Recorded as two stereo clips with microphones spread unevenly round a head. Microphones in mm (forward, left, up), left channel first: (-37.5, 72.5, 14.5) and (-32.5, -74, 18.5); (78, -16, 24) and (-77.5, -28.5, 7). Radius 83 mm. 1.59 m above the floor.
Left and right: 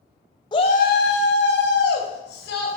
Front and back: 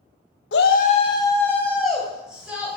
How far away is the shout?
About 0.7 m.